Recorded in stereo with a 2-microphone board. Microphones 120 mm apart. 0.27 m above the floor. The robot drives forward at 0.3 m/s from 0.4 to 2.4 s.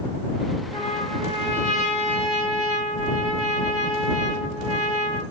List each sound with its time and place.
0.7 s a trumpet: 55° right (ahead or behind), 4.5 m; by 5.2 s 60° right (ahead or behind), 4.5 m